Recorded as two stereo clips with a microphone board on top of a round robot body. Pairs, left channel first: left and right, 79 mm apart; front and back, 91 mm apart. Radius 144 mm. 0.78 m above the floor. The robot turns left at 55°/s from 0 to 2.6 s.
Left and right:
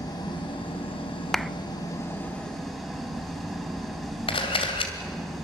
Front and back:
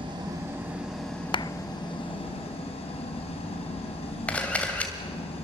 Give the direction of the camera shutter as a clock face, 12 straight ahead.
9 o'clock.